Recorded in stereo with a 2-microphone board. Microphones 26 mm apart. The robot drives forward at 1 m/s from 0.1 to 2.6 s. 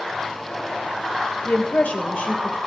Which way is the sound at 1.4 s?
60° left (ahead or behind).